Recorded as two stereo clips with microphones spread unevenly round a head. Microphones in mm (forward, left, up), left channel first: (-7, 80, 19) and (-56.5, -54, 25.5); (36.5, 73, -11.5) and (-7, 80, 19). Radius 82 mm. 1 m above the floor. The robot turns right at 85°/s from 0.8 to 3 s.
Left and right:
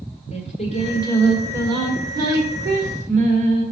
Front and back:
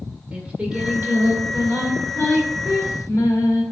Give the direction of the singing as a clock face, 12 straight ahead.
8 o'clock.